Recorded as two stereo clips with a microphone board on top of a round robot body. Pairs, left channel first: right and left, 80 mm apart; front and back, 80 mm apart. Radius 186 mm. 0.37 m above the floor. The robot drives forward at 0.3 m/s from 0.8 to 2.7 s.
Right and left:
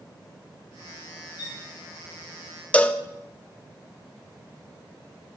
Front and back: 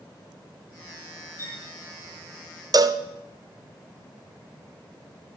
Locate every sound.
1.4 s a violin: 55° right, 1.9 m; by 1.6 s 60° right, 1.8 m
2.7 s a cowbell: 160° right, 0.6 m